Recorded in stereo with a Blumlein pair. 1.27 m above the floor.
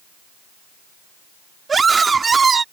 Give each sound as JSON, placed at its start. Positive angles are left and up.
{"t": 1.7, "sound": "a scream", "azimuth_deg": -15}